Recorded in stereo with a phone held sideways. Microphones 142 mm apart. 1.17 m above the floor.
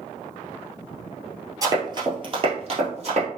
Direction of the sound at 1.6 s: 25° right (ahead or behind).